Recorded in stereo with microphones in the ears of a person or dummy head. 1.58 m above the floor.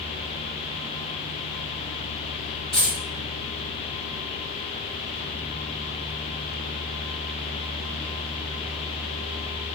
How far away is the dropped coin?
About 1.2 m.